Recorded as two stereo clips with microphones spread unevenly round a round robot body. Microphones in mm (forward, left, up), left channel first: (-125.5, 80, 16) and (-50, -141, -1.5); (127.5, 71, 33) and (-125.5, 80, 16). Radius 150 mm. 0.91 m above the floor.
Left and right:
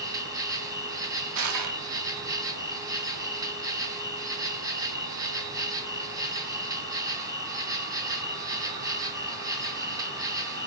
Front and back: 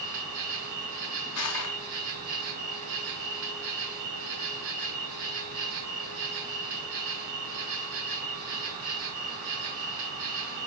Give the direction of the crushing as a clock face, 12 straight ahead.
1 o'clock.